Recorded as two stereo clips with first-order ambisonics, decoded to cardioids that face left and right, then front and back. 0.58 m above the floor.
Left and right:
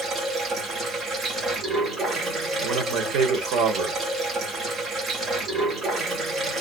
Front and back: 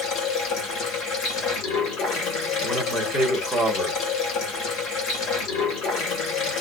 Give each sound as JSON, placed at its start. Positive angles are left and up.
{"t": 0.0, "sound": "running water", "azimuth_deg": -25, "distance_m": 1.2}
{"t": 2.6, "sound": "a man speaking", "azimuth_deg": -95, "distance_m": 1.2}